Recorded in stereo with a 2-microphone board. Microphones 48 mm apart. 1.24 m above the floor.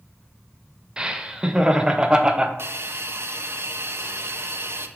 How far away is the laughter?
About 0.7 m.